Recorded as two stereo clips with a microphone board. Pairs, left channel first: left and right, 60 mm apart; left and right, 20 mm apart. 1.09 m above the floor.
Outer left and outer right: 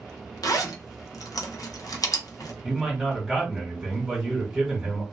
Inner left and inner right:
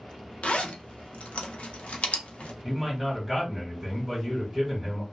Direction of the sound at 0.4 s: 75° left (ahead or behind).